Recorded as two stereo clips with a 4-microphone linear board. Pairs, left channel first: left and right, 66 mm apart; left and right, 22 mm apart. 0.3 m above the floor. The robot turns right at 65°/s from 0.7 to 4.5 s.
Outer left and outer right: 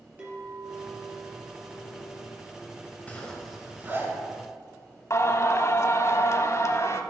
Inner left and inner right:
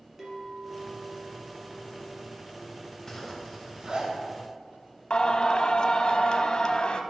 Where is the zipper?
25° left (ahead or behind), 2.5 m; by 4.1 s 40° right (ahead or behind), 2.5 m.